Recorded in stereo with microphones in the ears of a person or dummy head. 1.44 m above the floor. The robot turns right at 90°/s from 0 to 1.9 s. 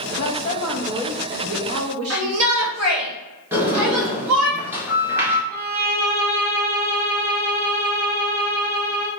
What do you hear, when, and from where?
0.2 s a woman speaking: 120° left, 0.8 m; by 3.0 s 80° right, 0.8 m
2.1 s a shout: 85° right, 1.4 m
3.5 s a sliding door: 15° right (ahead or behind), 1.6 m
5.5 s a violin: 15° right (ahead or behind), 2.5 m